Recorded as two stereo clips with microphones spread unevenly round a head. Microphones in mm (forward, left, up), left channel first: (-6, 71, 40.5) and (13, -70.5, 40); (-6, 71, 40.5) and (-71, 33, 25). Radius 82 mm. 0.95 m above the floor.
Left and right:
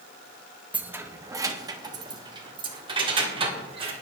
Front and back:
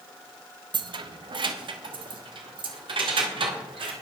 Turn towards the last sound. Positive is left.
turn(degrees=-140)